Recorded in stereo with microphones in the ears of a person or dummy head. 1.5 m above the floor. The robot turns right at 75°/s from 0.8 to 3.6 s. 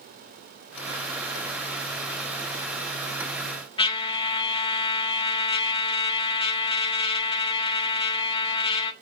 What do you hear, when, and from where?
3.8 s a trumpet: 25° left (ahead or behind), 1.4 m